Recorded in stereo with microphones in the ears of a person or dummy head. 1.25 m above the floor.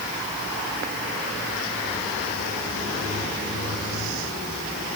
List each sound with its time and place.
Only background noise.